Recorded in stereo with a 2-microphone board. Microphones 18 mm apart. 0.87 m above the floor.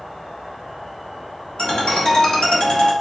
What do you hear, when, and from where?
0.0 s an insect: 25° left (ahead or behind), 1.9 m
1.6 s a ringtone: 75° left (ahead or behind), 1.3 m